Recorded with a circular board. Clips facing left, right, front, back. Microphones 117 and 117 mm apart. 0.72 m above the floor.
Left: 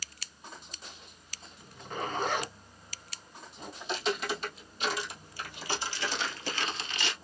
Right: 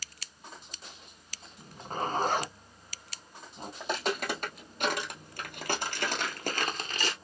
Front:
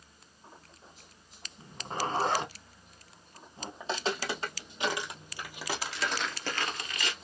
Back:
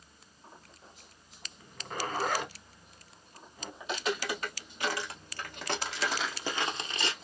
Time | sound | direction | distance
1.6 | a zipper | 50° right | 0.8 m
3.8 | footsteps | 55° right | 1.9 m